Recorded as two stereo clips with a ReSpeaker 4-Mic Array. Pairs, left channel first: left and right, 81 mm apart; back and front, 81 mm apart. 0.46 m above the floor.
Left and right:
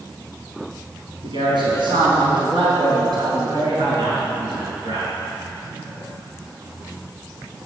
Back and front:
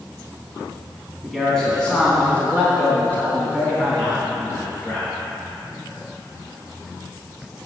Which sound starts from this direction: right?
A man speaking, at 1.2 s.